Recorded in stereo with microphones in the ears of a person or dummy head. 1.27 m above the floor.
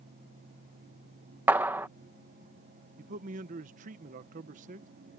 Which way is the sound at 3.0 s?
40° right (ahead or behind).